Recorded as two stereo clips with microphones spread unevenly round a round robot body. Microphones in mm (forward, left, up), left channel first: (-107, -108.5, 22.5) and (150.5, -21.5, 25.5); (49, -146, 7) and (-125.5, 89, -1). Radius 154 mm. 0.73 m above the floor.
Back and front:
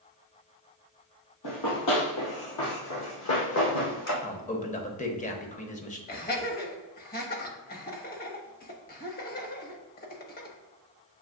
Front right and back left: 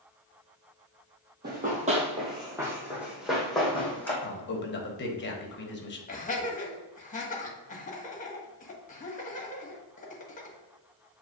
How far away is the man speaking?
About 1.0 m.